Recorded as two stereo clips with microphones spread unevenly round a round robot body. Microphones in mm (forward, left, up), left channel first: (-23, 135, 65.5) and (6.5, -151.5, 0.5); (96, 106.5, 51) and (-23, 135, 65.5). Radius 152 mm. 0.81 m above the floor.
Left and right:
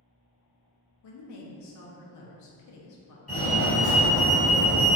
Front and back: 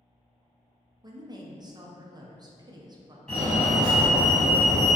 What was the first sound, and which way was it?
A woman speaking, 110° left.